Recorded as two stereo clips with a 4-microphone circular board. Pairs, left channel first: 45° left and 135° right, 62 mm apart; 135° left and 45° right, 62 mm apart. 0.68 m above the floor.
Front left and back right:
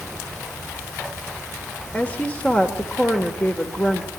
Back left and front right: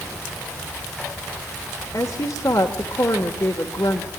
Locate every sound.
1.9 s a woman speaking: 110° left, 1.8 m